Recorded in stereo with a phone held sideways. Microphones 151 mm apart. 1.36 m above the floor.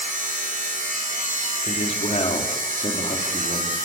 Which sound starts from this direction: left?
A man speaking, at 1.6 s.